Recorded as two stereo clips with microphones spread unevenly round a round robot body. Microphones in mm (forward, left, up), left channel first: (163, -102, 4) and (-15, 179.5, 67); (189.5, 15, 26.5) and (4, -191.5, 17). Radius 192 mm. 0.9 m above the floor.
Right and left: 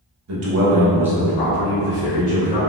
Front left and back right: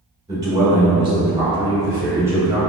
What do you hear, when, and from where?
0.3 s a man speaking: 155° left, 0.9 m; by 2.6 s 55° right, 1.3 m